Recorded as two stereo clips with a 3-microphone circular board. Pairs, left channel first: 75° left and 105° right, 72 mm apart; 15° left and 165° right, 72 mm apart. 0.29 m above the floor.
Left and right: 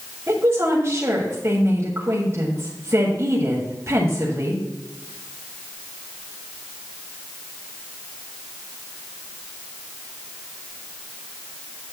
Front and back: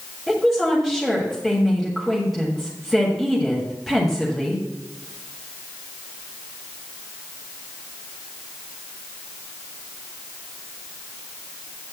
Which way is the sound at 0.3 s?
75° right.